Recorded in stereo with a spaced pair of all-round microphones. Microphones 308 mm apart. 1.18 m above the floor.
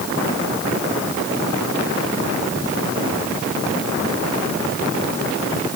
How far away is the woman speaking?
I don't hear a woman speaking.